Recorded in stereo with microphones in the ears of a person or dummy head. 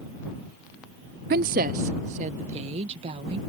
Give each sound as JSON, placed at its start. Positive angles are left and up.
{"t": 1.3, "sound": "a woman speaking", "side_deg": -50}